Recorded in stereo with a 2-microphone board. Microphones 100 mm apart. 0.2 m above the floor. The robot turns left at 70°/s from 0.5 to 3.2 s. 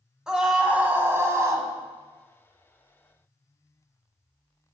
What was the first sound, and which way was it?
A scream, 5° right (ahead or behind).